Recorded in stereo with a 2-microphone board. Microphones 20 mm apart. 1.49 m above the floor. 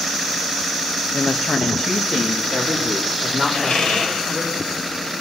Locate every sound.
1.1 s a woman speaking: 55° left (ahead or behind), 1.4 m; by 4.5 s 20° left (ahead or behind), 5 m
3.5 s a squeak: 65° left (ahead or behind), 5 m